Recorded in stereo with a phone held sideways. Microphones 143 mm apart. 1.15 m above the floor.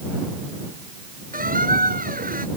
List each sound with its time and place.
1.3 s a squeak: 80° right